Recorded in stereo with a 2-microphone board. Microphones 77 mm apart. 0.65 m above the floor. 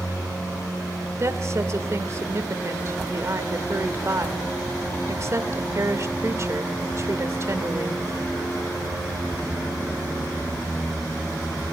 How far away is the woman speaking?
About 1.7 m.